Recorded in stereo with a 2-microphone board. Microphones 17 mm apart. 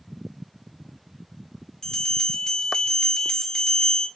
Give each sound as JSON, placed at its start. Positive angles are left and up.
{"t": 1.8, "sound": "a bell", "side_deg": 40, "distance_m": 0.7}